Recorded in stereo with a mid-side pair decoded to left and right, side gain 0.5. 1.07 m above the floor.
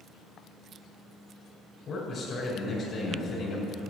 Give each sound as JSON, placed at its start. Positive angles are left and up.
{"t": 1.9, "sound": "a man speaking", "azimuth_deg": 55, "distance_m": 5.5}